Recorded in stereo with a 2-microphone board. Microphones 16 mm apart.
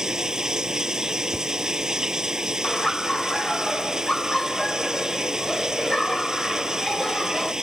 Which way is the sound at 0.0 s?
40° right (ahead or behind).